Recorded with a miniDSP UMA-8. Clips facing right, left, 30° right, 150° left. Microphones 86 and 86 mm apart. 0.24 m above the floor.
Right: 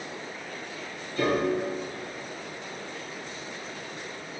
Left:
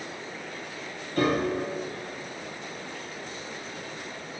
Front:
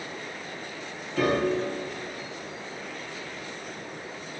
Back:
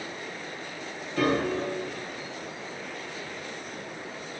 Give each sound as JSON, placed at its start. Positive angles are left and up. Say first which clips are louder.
{"t": 1.2, "sound": "a piano", "louder": "even, front 1 dB", "azimuth_deg": 65, "distance_m": 3.5}